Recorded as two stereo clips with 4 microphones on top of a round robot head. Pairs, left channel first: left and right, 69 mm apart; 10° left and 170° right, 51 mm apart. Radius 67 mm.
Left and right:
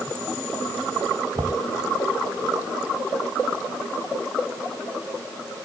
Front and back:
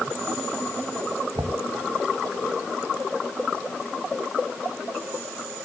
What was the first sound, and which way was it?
Knocking, 135° right.